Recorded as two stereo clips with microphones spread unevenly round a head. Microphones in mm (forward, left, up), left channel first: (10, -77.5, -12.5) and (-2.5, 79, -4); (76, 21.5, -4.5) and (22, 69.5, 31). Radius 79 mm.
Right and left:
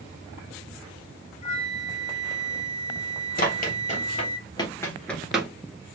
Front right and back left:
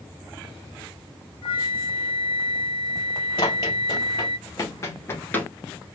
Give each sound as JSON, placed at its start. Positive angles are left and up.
{"t": 1.4, "sound": "a flute", "azimuth_deg": -30, "distance_m": 0.8}
{"t": 3.4, "sound": "running footsteps", "azimuth_deg": -95, "distance_m": 2.0}